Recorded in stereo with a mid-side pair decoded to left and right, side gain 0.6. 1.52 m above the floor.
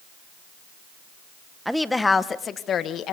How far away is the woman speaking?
About 1.6 m.